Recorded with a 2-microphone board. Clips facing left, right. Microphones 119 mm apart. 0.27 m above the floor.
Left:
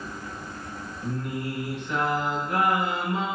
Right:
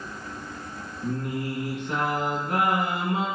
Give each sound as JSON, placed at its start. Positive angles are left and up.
{"t": 1.0, "sound": "singing", "side_deg": -50, "distance_m": 1.5}